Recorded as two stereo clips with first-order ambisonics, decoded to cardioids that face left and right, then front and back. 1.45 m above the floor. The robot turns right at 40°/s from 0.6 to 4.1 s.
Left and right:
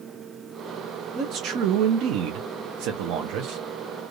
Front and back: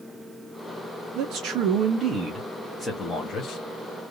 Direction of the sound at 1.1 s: 150° right.